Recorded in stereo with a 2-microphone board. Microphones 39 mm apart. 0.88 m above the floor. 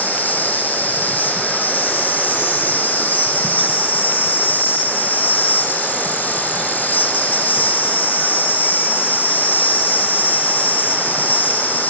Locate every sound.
0.0 s an insect: 55° left (ahead or behind), 1.7 m